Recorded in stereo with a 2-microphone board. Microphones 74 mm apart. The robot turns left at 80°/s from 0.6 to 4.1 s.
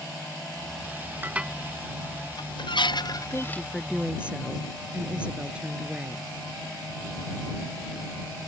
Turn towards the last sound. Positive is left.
turn(degrees=-20)